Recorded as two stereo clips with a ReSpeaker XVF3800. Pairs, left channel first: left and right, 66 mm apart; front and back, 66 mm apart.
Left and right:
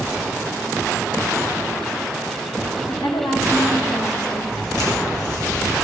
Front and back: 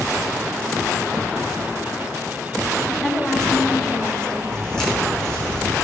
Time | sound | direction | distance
2.9 | a woman speaking | 80° left | 2.5 m
4.5 | footsteps | 75° left | 5 m